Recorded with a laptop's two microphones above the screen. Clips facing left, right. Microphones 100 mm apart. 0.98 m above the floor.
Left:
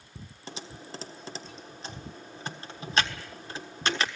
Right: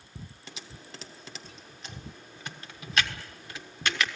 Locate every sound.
0.5 s typing on a keyboard: 35° left (ahead or behind), 1.3 m